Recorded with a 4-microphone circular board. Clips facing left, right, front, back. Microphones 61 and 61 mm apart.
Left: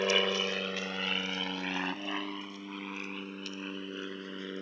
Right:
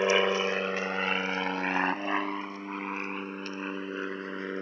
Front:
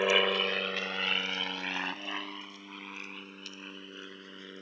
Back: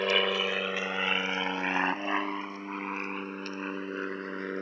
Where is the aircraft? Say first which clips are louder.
Right 5 dB, even; 75° right; by 4.6 s 140° right.